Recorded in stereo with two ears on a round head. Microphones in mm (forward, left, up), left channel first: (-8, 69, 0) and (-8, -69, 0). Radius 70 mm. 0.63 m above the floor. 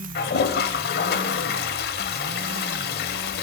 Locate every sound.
0.1 s a toilet flushing: 70° left (ahead or behind), 1.4 m